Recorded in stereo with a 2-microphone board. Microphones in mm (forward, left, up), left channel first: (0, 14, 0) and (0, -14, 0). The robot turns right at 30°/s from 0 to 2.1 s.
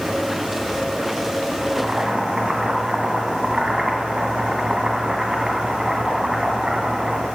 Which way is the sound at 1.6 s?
20° right (ahead or behind).